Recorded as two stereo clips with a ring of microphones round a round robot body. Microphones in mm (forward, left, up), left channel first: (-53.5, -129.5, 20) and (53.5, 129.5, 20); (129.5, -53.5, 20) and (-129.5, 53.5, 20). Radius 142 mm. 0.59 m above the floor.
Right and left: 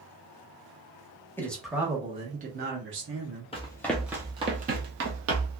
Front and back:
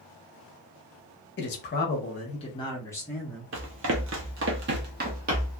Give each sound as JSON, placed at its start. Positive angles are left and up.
{"t": 1.4, "sound": "a man speaking", "azimuth_deg": -35, "distance_m": 0.9}
{"t": 3.5, "sound": "running footsteps", "azimuth_deg": -175, "distance_m": 0.7}